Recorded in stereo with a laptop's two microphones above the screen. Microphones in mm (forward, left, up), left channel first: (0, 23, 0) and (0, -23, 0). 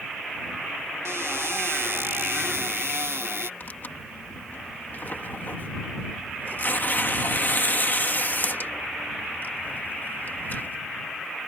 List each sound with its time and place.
1.1 s a cupboard door: 85° right
3.6 s tearing paper: 45° left (ahead or behind)